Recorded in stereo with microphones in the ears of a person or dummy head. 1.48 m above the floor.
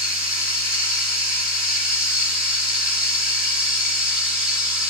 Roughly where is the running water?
Centre.